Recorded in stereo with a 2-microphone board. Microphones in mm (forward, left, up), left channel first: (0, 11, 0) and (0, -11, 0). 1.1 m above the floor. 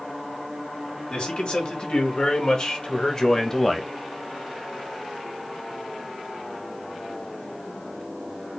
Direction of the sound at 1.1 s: 60° left (ahead or behind).